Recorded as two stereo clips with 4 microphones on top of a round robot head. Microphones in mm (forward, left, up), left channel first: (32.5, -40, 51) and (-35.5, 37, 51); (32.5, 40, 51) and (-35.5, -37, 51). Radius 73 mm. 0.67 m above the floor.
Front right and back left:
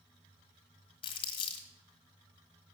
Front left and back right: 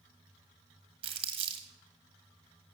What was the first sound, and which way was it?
Crumpling, 90° right.